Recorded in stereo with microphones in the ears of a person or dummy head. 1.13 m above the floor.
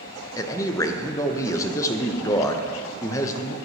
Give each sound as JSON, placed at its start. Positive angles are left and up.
{"t": 0.4, "sound": "a man speaking", "side_deg": 15, "distance_m": 0.6}